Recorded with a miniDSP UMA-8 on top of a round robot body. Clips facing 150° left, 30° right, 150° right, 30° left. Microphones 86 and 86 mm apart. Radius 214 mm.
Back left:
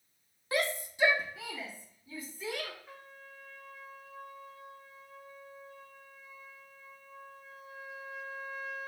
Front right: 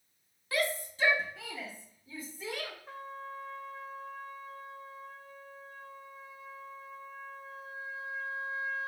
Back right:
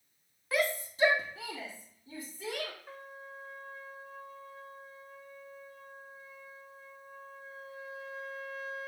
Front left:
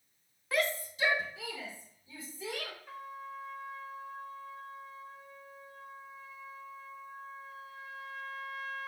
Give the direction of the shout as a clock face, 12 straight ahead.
8 o'clock.